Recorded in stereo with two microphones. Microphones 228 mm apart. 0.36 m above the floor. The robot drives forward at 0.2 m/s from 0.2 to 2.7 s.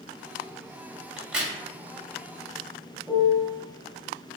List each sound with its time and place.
1.2 s a crack: 5° right (ahead or behind), 0.6 m
3.1 s a piano: 5° right (ahead or behind), 0.5 m